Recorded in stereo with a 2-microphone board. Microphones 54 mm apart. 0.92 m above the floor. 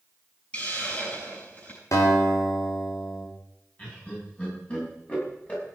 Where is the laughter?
25° left (ahead or behind), 6.5 m.